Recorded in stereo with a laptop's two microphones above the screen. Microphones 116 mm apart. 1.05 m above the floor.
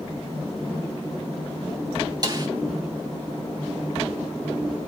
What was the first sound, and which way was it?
A snare drum, 35° right (ahead or behind).